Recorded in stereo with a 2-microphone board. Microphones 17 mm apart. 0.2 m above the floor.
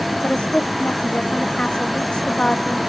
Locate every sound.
0.2 s a woman speaking: 85° left